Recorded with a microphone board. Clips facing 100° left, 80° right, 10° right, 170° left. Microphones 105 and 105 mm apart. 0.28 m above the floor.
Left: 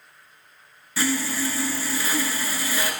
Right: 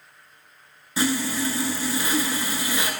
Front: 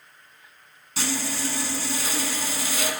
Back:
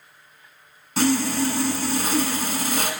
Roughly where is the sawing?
Behind right.